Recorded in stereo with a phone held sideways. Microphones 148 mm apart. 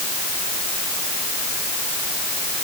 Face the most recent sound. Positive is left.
No sound to turn to.